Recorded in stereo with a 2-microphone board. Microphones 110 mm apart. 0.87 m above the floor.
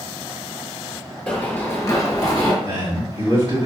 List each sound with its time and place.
1.3 s running footsteps: 15° left (ahead or behind), 1.1 m; by 2.5 s 40° left (ahead or behind), 1.1 m
2.6 s a man speaking: 50° right (ahead or behind), 1.6 m